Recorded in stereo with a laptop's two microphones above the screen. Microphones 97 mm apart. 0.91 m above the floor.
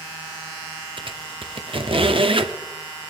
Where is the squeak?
65° right (ahead or behind), 0.7 m.